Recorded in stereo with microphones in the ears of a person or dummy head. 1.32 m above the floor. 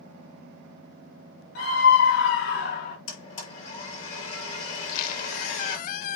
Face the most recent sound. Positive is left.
turn(degrees=50)  # may be behind; listen again after turning